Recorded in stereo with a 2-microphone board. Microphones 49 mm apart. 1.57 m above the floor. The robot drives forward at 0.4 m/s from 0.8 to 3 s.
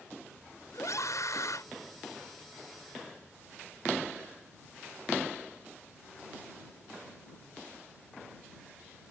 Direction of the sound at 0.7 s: 85° left.